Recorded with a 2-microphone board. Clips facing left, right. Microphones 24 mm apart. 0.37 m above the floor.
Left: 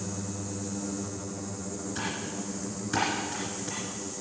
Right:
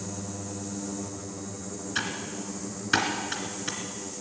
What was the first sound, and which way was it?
Typing on a keyboard, 50° right (ahead or behind).